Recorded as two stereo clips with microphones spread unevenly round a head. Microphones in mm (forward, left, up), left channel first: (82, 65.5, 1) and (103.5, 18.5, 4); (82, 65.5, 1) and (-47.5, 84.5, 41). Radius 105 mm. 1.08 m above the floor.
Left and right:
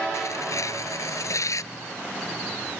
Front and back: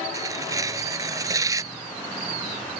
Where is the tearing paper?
110° left.